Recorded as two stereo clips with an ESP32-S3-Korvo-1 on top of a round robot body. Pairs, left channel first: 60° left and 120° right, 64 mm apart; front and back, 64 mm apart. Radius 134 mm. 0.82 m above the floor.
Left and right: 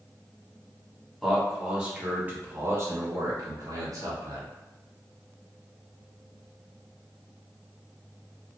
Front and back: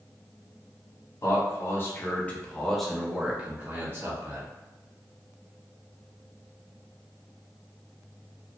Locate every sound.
1.2 s a man speaking: 30° right, 1.5 m; by 4.5 s 135° right, 1.6 m